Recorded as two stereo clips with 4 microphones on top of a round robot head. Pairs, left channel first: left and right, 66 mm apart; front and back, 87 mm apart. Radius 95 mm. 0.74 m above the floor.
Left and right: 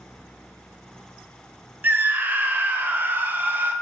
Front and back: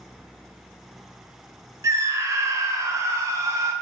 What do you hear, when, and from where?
1.8 s a scream: 140° right, 0.5 m